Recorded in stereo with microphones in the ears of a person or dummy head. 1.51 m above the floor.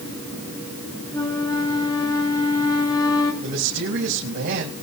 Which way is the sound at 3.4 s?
55° right (ahead or behind).